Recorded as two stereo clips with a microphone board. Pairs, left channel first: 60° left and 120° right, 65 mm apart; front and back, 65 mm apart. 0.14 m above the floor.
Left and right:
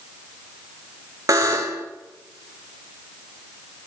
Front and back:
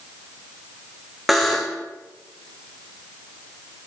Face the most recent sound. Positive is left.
turn(degrees=-90)